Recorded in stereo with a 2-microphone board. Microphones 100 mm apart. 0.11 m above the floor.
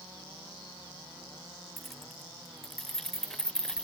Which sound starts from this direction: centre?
Keys jangling, at 1.8 s.